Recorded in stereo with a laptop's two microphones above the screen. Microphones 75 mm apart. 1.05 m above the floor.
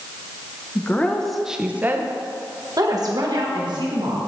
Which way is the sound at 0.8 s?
30° left (ahead or behind).